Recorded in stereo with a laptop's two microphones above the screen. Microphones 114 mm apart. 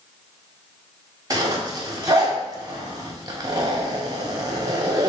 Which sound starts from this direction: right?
A zipper, at 1.3 s.